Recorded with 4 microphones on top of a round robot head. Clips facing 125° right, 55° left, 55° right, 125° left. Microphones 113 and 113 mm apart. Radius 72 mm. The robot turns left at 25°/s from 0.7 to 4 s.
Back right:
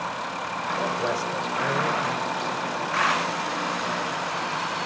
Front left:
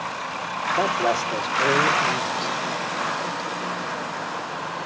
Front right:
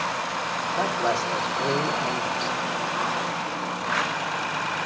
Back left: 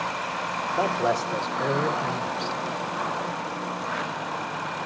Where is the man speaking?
40° left, 1.3 m; by 2.5 s 5° right, 1.3 m.